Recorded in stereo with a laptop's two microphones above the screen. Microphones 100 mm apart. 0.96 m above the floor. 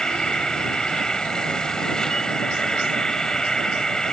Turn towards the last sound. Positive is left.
turn(degrees=5)  # may be behind; listen again after turning